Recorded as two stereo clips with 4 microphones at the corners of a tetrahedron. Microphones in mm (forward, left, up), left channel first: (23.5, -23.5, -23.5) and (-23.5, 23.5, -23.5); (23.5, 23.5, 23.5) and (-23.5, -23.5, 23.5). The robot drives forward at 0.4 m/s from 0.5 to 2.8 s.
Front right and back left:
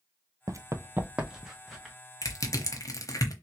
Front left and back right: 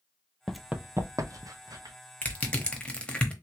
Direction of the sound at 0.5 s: 130° left.